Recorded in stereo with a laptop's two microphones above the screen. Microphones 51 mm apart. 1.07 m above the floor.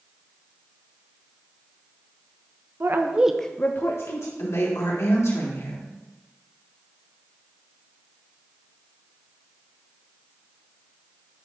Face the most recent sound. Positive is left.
turn(degrees=75)  # may be behind; listen again after turning